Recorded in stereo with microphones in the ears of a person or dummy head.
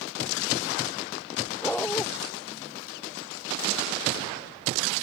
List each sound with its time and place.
1.6 s a dog barking: 10° left (ahead or behind)